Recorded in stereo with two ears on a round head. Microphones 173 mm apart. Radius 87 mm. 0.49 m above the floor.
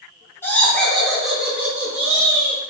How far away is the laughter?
About 1.1 m.